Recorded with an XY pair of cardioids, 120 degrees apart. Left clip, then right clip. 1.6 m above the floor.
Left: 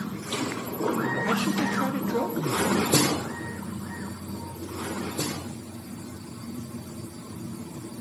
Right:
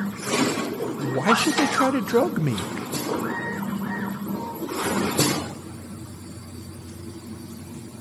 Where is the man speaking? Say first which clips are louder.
Right 10 dB; 45° right, 0.8 m.